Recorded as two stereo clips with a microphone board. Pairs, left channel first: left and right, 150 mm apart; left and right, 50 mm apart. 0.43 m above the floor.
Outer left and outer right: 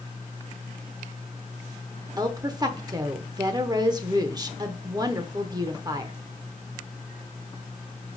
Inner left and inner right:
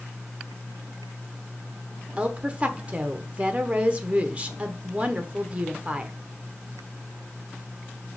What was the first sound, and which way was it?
A woman speaking, 25° right (ahead or behind).